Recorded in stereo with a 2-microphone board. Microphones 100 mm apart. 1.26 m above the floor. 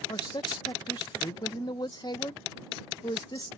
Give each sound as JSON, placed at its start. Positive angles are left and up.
{"t": 0.1, "sound": "a man speaking", "side_deg": 45}